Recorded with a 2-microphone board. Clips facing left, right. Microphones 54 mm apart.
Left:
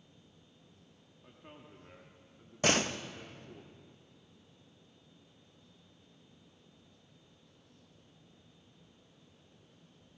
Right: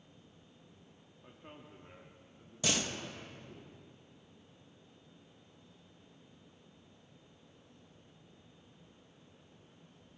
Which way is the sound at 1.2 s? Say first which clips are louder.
Right 1 dB; 10° right (ahead or behind).